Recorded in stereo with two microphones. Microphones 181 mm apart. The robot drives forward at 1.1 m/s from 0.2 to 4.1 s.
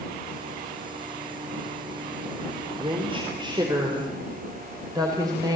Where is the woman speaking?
30° right (ahead or behind), 3.5 m; by 5.5 s 20° right (ahead or behind), 4.5 m.